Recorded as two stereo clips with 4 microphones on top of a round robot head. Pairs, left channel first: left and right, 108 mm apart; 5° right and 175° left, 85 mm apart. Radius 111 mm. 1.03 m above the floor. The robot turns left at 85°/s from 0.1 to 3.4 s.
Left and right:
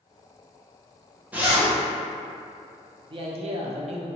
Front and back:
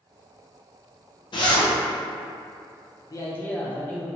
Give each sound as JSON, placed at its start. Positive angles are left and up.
{"t": 1.3, "sound": "a zipper", "azimuth_deg": -15, "distance_m": 0.9}
{"t": 3.1, "sound": "a man speaking", "azimuth_deg": -50, "distance_m": 0.6}